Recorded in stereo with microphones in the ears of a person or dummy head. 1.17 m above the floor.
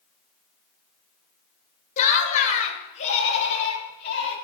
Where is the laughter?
40° left (ahead or behind), 1.9 m; by 4.3 s 35° left (ahead or behind), 5 m.